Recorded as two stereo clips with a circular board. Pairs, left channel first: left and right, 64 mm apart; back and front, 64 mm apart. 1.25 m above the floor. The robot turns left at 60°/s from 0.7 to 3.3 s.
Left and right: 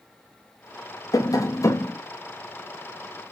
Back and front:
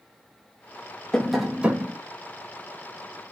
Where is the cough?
I don't hear a cough.